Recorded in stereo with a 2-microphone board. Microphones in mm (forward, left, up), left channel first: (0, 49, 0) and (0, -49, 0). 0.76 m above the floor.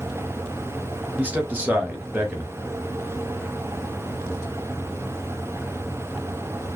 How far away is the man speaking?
About 0.7 m.